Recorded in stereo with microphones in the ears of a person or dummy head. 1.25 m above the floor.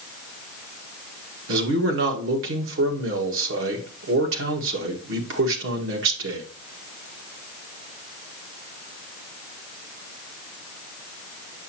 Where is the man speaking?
75° right (ahead or behind), 1.8 m.